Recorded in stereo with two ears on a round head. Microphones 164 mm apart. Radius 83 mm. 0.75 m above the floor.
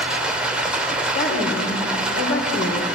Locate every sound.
0.0 s running water: 5° right (ahead or behind), 2.5 m
1.1 s a woman speaking: 70° left (ahead or behind), 3 m